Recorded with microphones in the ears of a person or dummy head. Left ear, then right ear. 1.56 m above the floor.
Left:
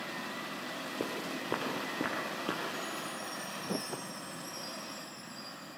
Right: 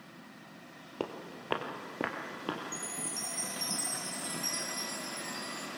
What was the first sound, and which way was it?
Footsteps, 30° right (ahead or behind).